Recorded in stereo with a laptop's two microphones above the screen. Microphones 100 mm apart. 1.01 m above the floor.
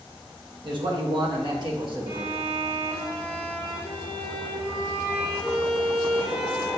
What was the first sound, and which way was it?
A man speaking, 55° right (ahead or behind).